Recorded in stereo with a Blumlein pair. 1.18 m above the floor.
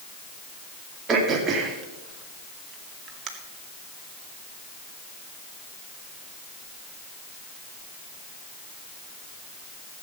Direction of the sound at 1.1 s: 25° right.